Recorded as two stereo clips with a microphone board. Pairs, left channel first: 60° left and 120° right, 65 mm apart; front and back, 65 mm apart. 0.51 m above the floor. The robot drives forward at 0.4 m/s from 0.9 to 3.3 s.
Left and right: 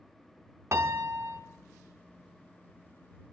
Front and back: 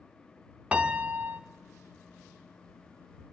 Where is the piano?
120° right, 0.7 m; by 1.4 s 135° right, 0.8 m.